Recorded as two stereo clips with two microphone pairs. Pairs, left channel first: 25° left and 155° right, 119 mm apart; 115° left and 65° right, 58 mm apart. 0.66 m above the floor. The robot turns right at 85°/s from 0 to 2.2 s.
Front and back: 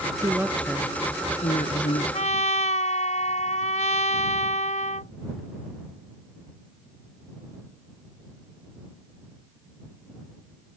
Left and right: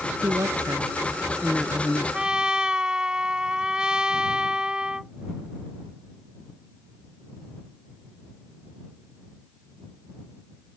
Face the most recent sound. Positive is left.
turn(degrees=10)